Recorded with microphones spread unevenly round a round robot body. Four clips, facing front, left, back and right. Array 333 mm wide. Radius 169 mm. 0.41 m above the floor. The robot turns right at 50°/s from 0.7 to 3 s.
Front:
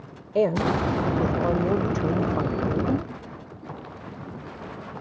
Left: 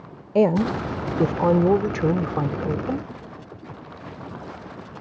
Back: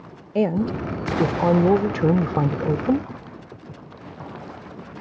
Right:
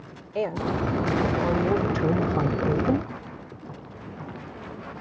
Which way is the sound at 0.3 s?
90° left.